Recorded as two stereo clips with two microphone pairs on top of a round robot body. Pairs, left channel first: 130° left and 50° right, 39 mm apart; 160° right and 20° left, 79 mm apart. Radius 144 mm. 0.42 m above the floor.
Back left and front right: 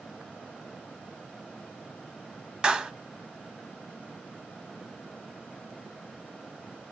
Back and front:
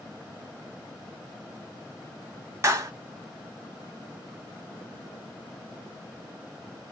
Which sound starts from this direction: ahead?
A clap, at 2.6 s.